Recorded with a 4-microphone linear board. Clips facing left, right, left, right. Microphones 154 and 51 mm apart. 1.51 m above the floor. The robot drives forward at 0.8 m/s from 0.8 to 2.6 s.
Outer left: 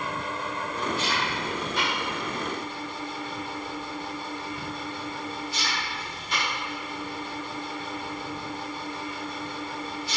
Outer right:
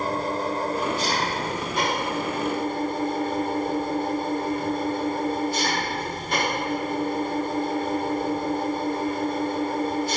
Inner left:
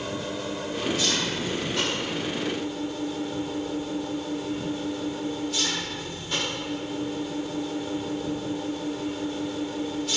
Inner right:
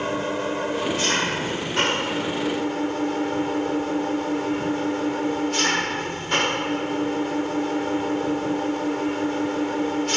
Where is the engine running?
40° right (ahead or behind); by 10.2 s 50° right (ahead or behind).